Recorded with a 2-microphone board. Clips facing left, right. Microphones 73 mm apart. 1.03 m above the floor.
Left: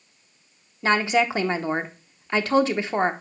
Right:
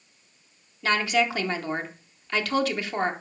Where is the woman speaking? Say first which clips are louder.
Left 3 dB; 25° left (ahead or behind), 0.9 m.